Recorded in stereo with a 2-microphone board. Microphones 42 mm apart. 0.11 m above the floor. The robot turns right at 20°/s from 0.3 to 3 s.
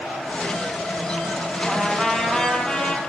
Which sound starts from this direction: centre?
A trumpet, at 1.6 s.